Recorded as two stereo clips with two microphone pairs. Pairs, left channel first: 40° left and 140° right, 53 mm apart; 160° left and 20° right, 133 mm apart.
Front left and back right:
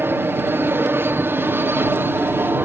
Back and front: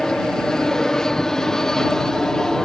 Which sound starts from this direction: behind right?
An aircraft, at 0.0 s.